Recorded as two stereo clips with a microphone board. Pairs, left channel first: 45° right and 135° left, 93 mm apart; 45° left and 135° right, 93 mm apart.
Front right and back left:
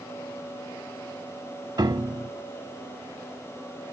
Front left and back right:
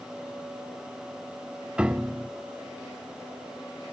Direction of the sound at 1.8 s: 150° left.